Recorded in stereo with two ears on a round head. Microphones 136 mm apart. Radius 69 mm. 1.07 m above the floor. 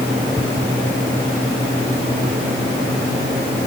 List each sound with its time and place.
Only background noise.